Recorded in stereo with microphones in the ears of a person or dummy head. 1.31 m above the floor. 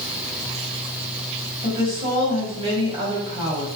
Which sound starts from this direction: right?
A woman speaking, at 1.6 s.